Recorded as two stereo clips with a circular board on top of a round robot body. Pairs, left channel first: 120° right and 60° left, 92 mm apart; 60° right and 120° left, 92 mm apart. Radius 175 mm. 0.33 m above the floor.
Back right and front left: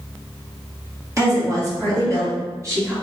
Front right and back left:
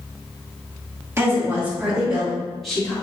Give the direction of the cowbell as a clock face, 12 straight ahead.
No cowbell in this recording.